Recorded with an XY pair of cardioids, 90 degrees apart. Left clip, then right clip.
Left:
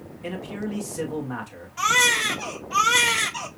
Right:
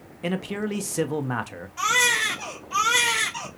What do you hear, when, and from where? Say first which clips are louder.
0.2 s a man speaking: right 4 dB; 60° right, 1.0 m
1.8 s a baby crying: left 1 dB; 5° left, 3.5 m